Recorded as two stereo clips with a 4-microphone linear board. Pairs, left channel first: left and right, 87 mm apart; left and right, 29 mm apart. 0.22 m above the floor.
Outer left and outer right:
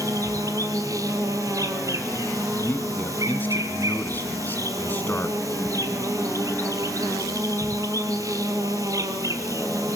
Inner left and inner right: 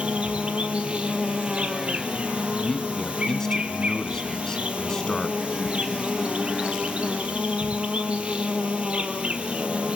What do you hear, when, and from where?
0.0 s an insect: 40° right (ahead or behind), 1.8 m
2.6 s a man speaking: 20° left (ahead or behind), 2 m